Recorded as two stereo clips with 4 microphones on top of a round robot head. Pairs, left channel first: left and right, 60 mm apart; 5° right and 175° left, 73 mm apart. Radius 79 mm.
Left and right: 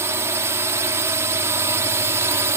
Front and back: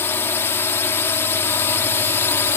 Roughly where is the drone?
Ahead right.